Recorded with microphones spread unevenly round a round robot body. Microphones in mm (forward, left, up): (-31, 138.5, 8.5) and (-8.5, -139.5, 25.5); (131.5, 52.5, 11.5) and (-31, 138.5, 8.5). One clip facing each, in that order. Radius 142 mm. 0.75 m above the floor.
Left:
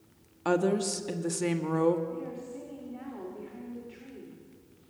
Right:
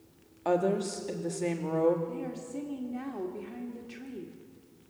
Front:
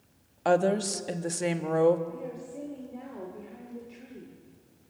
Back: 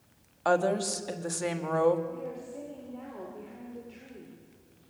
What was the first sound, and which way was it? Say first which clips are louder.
A woman speaking: left 1 dB, front 2 dB; 35° left.